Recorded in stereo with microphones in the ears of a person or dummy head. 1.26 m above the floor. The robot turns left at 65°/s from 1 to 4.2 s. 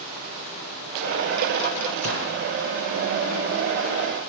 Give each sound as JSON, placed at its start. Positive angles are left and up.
{"t": 2.0, "sound": "a gunshot", "side_deg": -65, "distance_m": 6.5}